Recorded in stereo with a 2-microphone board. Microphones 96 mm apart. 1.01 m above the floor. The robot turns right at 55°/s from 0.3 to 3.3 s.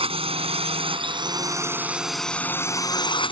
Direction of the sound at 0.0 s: 100° right.